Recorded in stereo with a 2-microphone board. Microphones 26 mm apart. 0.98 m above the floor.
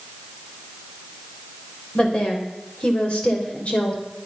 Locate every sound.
1.9 s a woman speaking: 35° left (ahead or behind), 3.5 m; by 4.0 s 55° left (ahead or behind), 3.5 m